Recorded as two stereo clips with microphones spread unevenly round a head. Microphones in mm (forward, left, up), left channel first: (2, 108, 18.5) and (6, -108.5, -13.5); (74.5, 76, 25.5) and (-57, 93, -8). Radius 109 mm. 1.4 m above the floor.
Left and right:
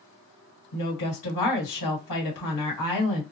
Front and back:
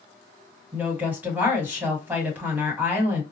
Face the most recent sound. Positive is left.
turn(degrees=95)